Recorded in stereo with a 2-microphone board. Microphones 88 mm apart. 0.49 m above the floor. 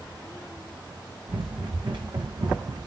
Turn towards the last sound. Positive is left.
turn(degrees=-65)  # may be behind; listen again after turning